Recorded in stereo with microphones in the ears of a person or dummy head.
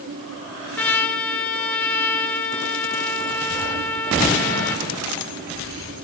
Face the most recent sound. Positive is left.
turn(degrees=10)  # may be behind; listen again after turning